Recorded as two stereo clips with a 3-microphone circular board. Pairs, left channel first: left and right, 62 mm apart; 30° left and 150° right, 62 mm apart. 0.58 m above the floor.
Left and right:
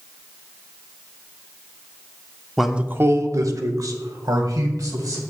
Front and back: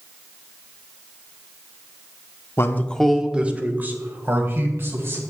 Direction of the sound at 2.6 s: Straight ahead.